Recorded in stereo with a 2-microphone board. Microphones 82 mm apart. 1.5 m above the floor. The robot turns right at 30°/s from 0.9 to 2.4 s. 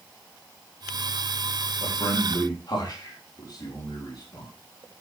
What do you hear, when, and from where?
1.8 s a man speaking: 75° left (ahead or behind), 3.5 m; by 4.5 s 55° left (ahead or behind), 3.5 m